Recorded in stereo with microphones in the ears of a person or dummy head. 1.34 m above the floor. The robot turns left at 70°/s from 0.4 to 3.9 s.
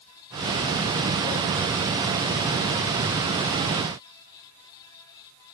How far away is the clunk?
No clunk in this recording.